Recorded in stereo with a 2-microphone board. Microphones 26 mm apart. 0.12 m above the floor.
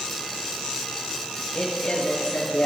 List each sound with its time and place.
1.5 s a woman speaking: 45° left (ahead or behind), 2.5 m; by 2.7 s 55° left (ahead or behind), 2.5 m